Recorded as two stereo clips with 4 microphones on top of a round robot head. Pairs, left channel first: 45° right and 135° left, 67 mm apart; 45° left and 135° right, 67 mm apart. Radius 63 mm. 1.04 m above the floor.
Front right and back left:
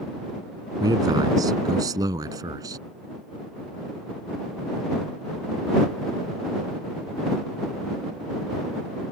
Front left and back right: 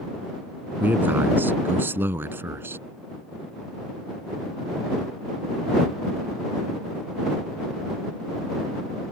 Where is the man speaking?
160° left; by 2.8 s 170° left.